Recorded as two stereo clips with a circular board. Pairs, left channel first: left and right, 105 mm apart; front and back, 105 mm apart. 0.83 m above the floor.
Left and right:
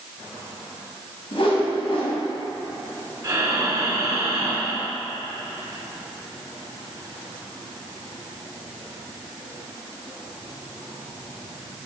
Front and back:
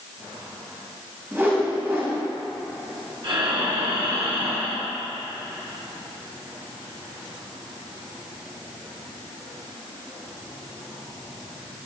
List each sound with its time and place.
1.3 s a whoosh: 115° left, 1.9 m
3.2 s breathing: 145° right, 1.3 m